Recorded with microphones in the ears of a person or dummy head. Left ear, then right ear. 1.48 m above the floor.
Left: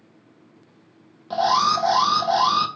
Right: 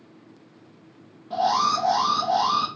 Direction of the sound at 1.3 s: 60° left (ahead or behind).